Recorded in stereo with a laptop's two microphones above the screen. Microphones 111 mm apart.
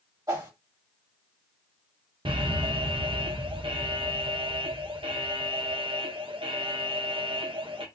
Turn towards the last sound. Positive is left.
turn(degrees=-55)  # may be behind; listen again after turning